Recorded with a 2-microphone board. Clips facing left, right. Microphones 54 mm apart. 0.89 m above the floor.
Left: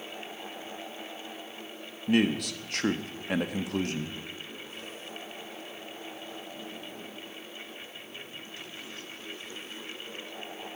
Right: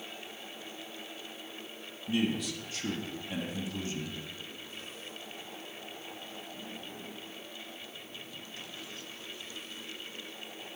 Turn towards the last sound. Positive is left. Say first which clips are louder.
# left 5 dB
turn(degrees=60)  # may be behind; listen again after turning